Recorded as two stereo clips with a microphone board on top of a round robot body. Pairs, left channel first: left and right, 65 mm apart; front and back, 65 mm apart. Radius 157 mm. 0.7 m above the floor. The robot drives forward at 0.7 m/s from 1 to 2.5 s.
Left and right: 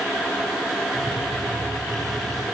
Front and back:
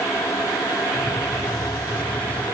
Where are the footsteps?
I don't hear footsteps.